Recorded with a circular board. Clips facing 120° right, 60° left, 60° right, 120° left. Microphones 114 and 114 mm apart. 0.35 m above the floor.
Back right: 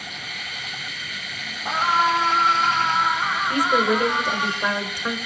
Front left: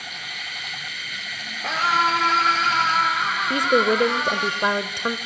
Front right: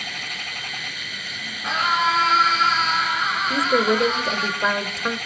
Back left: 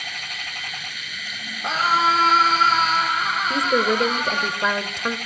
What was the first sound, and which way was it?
A scream, 65° left.